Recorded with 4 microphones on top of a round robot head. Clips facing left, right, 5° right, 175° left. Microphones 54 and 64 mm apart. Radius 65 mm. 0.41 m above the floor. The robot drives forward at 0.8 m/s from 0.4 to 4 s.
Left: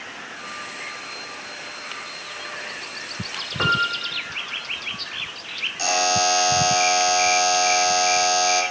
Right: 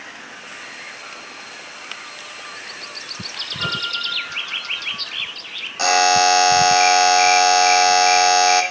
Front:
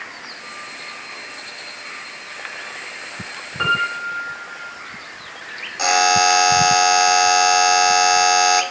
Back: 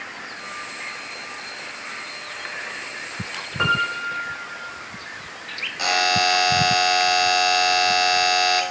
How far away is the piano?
About 1.5 m.